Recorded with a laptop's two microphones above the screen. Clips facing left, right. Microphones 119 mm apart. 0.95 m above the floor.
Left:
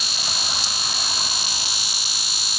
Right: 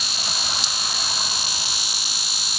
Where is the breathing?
No breathing in this recording.